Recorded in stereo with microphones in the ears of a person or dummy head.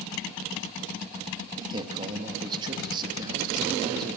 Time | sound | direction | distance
1.6 | a man speaking | 25° right (ahead or behind) | 2 m